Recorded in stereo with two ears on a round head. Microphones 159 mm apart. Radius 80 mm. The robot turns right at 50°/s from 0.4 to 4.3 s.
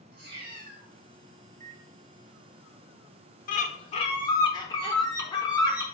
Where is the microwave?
35° right (ahead or behind), 0.7 m; by 1.8 s 50° right (ahead or behind), 0.7 m.